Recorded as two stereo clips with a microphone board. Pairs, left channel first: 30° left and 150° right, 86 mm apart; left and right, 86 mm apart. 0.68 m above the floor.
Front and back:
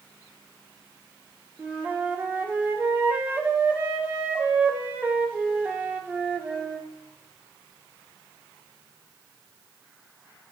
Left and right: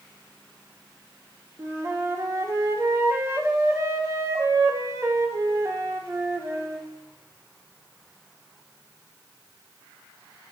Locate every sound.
1.6 s a flute: 105° right, 0.5 m